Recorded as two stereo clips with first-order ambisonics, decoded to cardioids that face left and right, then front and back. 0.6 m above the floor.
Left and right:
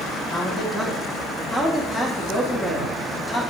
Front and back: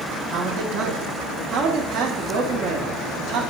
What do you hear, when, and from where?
0.3 s a man speaking: 165° left, 1.0 m